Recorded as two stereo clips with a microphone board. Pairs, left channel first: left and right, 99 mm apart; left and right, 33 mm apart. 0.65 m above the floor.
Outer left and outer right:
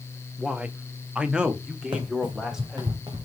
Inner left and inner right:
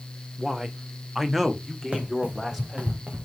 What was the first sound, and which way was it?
A man speaking, 10° right (ahead or behind).